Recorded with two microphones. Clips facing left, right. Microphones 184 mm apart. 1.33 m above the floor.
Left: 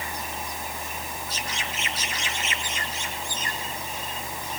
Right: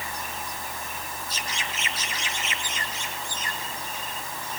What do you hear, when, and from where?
Only background noise.